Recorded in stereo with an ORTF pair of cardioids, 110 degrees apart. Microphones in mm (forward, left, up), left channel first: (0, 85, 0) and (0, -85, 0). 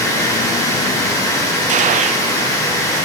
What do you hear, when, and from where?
0.0 s running water: 20° left, 3 m
1.7 s a gunshot: 45° right, 0.5 m